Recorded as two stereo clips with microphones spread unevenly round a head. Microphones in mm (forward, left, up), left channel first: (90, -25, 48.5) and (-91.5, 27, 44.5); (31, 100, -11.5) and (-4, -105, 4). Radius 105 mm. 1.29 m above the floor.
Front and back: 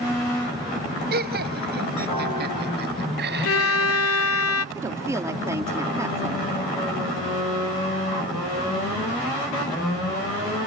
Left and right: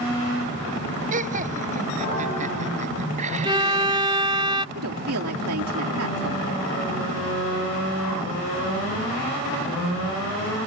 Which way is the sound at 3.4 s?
30° right.